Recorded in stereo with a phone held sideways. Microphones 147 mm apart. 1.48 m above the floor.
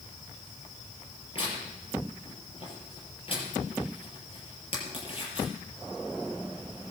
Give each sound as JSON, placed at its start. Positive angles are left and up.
{"t": 1.4, "sound": "tearing paper", "side_deg": 40, "distance_m": 5.0}